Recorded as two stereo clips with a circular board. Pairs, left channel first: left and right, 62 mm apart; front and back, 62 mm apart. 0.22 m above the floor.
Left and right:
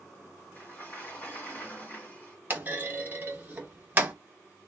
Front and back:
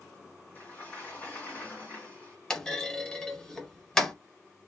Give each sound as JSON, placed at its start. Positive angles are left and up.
{"t": 0.6, "sound": "a sliding door", "azimuth_deg": 50, "distance_m": 1.9}
{"t": 2.5, "sound": "a clunk", "azimuth_deg": -70, "distance_m": 0.7}